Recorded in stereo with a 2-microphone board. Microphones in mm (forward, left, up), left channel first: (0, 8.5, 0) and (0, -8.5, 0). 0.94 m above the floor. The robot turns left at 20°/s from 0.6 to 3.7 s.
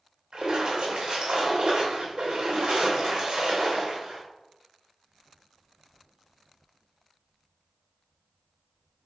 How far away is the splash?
About 2.5 m.